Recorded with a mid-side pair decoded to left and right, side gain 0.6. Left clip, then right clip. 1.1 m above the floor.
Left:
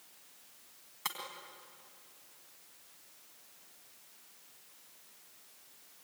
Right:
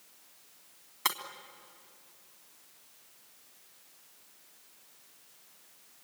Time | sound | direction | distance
1.1 | breaking glass | 40° right | 3 m